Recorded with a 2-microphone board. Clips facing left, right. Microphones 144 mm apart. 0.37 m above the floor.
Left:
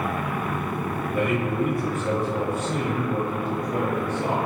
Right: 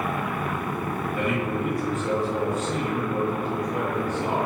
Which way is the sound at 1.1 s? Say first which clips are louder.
Left 3 dB; 50° left (ahead or behind).